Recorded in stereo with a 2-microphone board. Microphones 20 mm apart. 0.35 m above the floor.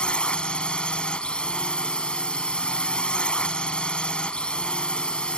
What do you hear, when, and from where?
0.0 s a drone: 65° left (ahead or behind)